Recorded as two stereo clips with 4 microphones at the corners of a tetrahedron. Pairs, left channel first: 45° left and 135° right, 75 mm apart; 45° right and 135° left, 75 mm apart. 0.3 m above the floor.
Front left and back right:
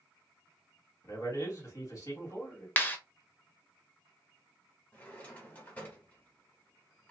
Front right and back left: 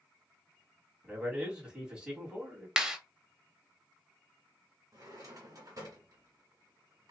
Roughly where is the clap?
Left.